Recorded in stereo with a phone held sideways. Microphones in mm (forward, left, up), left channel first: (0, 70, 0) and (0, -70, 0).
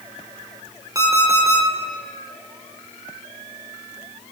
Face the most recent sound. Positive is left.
turn(degrees=-25)  # may be behind; listen again after turning